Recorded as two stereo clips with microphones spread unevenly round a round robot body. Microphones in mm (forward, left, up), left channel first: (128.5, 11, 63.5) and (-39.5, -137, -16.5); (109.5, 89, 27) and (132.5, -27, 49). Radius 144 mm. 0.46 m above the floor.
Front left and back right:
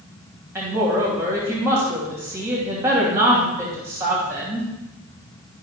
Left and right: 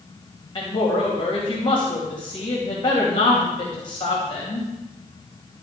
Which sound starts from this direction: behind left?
A woman speaking, at 0.6 s.